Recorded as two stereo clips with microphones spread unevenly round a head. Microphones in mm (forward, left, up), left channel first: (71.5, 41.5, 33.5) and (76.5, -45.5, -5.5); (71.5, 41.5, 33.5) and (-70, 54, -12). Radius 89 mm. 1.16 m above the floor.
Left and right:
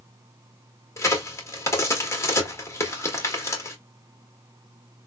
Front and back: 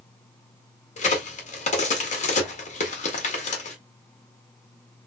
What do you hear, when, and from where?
1.0 s a crack: 35° left, 1.6 m